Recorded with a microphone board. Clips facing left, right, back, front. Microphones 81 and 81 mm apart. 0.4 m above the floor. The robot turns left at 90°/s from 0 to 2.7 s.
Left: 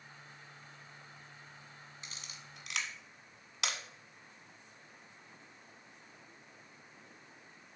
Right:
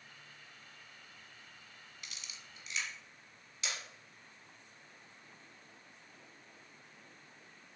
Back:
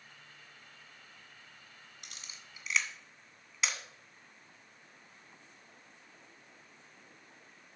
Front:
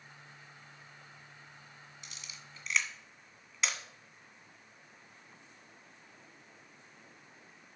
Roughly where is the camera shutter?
Behind left.